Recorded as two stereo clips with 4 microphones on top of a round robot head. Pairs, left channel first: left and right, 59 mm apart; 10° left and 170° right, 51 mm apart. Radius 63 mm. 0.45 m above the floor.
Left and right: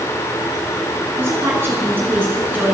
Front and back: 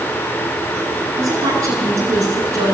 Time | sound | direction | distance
1.2 | a woman speaking | 145° right | 7.5 m